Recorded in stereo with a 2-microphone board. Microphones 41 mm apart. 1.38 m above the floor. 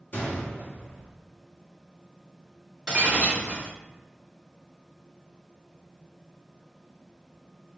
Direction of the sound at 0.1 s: 50° left (ahead or behind).